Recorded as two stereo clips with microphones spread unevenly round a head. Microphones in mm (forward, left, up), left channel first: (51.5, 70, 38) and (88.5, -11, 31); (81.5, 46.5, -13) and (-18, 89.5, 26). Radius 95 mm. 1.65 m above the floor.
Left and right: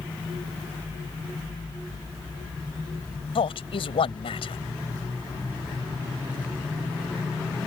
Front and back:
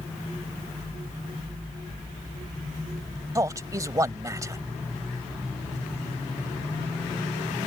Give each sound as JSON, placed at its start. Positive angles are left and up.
{"t": 3.4, "sound": "a man speaking", "azimuth_deg": 100}